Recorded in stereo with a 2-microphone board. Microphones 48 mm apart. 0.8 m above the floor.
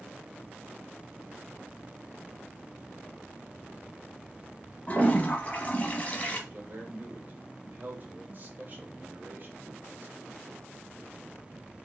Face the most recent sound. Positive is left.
turn(degrees=-40)  # may be behind; listen again after turning